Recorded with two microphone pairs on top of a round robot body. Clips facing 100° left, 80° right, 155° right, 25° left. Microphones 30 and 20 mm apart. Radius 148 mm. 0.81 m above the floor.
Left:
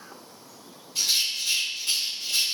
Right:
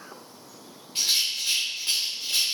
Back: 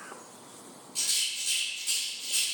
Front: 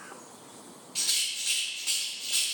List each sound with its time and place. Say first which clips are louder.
0.9 s a rattle: even, front 1 dB; 45° right, 0.6 m